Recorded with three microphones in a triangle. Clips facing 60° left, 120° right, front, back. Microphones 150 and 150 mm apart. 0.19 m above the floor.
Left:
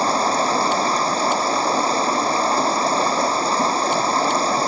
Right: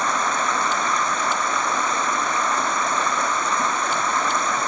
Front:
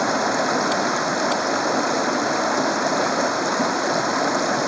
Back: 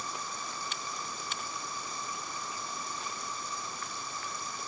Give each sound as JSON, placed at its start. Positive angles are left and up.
{"t": 0.0, "sound": "running water", "azimuth_deg": 5}